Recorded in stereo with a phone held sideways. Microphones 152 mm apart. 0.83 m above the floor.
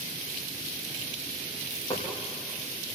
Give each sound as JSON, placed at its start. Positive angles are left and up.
{"t": 1.6, "sound": "a dropped coin", "side_deg": 25, "distance_m": 6.5}